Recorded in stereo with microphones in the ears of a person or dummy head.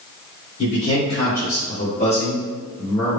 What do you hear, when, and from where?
0.6 s a man speaking: 75° left (ahead or behind), 1.6 m; by 3.2 s 10° left (ahead or behind), 1.3 m